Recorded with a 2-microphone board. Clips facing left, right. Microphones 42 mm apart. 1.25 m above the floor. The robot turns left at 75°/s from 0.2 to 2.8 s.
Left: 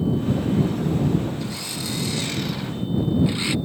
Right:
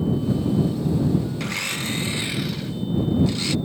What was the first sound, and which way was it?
A blender, 95° right.